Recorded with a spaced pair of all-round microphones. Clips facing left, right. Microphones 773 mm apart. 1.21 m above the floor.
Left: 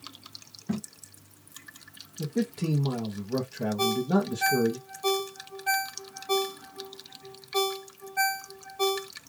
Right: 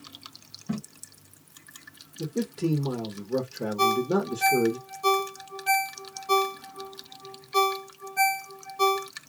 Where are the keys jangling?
No keys jangling in this recording.